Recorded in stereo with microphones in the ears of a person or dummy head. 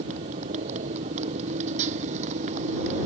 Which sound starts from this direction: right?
A motorcycle, at 0.0 s.